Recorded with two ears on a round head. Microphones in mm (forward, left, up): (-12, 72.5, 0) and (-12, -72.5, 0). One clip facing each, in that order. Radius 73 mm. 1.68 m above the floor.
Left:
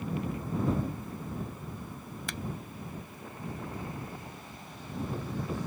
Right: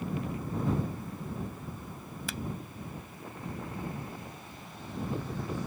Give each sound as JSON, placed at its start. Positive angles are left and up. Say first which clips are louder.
{"t": 2.3, "sound": "a finger snap", "louder": "right 1 dB", "side_deg": 0}